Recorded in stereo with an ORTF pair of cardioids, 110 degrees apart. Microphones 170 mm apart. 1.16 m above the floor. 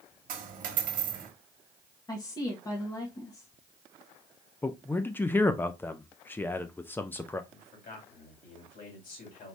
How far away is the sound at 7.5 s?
About 3.5 m.